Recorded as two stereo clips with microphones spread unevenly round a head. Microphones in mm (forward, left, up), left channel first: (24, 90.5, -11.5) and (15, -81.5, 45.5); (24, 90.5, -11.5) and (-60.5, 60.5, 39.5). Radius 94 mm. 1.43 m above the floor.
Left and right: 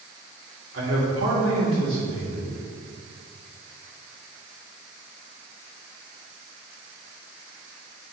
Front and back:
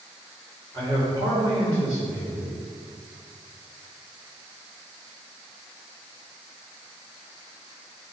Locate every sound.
0.7 s a man speaking: 80° right, 2.5 m